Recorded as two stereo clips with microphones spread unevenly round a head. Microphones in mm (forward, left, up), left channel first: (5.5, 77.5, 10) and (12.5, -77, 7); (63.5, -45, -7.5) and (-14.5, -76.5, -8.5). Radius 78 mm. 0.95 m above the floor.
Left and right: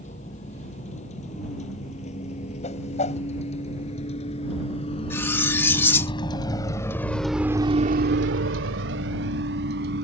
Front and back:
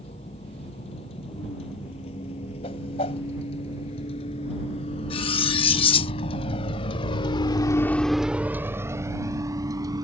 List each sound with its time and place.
0.0 s a vehicle: 45° left; by 10.1 s 115° right
2.6 s a whoosh: 45° left
5.1 s cutlery clinking: 15° left